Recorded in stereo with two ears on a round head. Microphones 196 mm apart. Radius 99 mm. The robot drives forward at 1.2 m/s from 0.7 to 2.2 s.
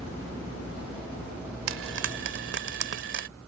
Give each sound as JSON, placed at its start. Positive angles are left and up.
{"t": 1.7, "sound": "frying", "side_deg": -70}